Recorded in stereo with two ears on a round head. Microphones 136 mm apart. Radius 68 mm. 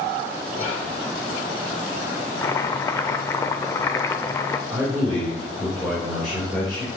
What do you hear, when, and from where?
0.5 s whispering: 35° left (ahead or behind), 1.7 m
2.4 s chopping: 20° left (ahead or behind), 0.5 m
4.7 s a man speaking: centre (ahead or behind), 3 m